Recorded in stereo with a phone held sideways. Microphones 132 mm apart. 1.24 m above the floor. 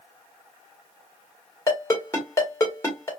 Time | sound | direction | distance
1.7 | a ringtone | 20° left (ahead or behind) | 1.8 m